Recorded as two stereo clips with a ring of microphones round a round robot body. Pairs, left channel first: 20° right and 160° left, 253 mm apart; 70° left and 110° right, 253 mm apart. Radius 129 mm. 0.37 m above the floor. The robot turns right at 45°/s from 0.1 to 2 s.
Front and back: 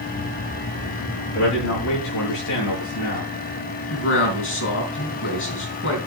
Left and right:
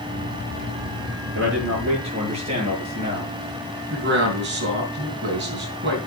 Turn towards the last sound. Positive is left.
turn(degrees=-65)